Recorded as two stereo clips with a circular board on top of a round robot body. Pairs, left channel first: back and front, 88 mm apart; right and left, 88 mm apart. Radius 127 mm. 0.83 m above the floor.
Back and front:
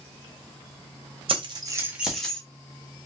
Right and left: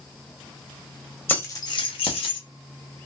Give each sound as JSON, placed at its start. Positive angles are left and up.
{"t": 1.3, "sound": "keys jangling", "azimuth_deg": -25, "distance_m": 1.1}